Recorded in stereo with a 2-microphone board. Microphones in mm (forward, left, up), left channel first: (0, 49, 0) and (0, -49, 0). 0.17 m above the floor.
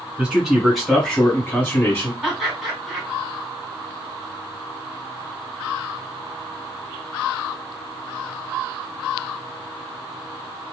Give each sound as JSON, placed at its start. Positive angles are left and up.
{"t": 0.2, "sound": "a man speaking", "side_deg": -10, "distance_m": 2.0}
{"t": 2.2, "sound": "laughter", "side_deg": 0, "distance_m": 1.5}